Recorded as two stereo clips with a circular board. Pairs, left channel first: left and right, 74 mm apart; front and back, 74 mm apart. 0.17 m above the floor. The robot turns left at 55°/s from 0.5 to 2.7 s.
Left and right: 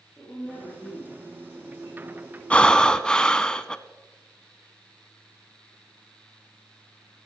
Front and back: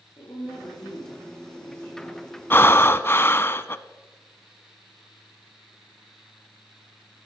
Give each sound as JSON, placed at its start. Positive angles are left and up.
{"t": 0.2, "sound": "a woman speaking", "azimuth_deg": 15, "distance_m": 6.5}
{"t": 2.5, "sound": "breathing", "azimuth_deg": 30, "distance_m": 0.6}